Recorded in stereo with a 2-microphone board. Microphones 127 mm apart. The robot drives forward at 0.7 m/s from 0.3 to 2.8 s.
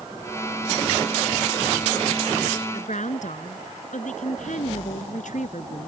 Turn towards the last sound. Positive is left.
turn(degrees=75)  # may be behind; listen again after turning